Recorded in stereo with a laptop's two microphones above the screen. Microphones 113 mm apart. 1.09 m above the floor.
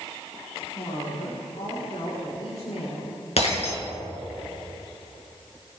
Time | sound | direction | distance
0.8 | a woman speaking | 80° left | 4 m
3.4 | breaking glass | 70° left (ahead or behind) | 4.5 m